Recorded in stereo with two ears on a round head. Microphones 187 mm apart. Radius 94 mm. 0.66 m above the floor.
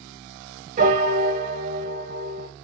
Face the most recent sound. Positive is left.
turn(degrees=-40)  # may be behind; listen again after turning